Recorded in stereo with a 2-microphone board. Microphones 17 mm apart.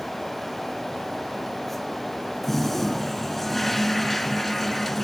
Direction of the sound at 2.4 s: 15° left (ahead or behind).